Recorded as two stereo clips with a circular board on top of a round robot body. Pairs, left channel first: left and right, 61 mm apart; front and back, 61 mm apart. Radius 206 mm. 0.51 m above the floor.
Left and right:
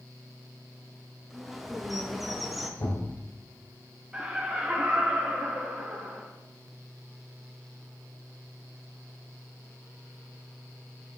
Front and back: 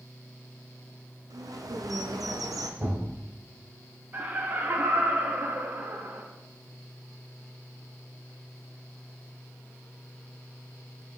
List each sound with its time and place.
1.3 s a bird: straight behind, 0.7 m
2.8 s a thud: 120° left, 2 m
4.1 s laughter: 160° right, 1.3 m